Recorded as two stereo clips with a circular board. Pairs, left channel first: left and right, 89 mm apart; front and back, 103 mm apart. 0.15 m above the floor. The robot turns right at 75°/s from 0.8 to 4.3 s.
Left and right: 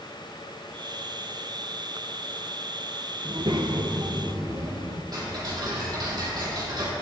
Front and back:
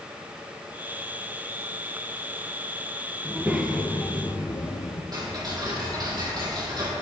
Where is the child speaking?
125° right, 2.5 m; by 5.0 s 45° right, 2.5 m.